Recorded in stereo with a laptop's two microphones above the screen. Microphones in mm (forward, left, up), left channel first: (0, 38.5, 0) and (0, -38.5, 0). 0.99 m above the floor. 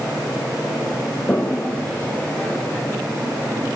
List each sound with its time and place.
1.3 s a toilet flushing: 20° left (ahead or behind), 0.6 m